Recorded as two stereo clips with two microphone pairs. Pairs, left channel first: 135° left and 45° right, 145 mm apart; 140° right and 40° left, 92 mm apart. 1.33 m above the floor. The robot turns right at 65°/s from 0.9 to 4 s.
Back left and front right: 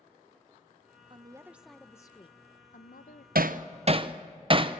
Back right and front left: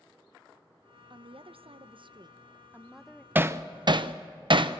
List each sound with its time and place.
1.1 s a woman speaking: 10° left, 0.7 m; by 3.2 s 150° left, 0.7 m
3.4 s hammering: 30° right, 0.6 m; by 4.8 s 10° left, 0.6 m